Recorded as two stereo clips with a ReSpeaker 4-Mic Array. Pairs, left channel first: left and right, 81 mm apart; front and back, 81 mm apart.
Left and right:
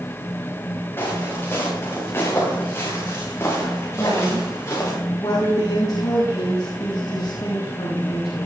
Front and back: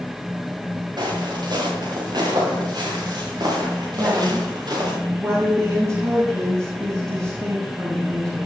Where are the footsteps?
150° left, 7.5 m; by 4.9 s 145° left, 10 m.